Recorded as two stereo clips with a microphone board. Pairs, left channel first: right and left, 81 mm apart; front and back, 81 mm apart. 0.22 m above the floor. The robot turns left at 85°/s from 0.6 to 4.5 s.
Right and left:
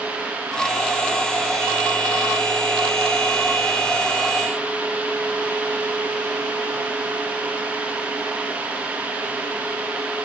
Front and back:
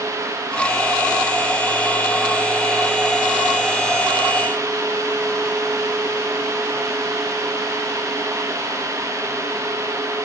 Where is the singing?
No singing in this recording.